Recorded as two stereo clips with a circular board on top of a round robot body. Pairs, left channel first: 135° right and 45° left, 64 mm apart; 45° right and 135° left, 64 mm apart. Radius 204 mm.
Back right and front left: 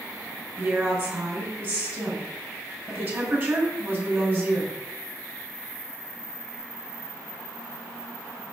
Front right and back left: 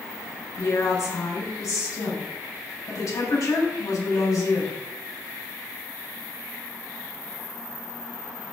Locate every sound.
0.6 s a woman speaking: 10° right, 5 m